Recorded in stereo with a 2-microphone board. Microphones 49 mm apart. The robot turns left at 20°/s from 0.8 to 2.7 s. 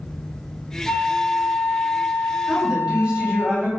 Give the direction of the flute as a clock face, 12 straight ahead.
8 o'clock.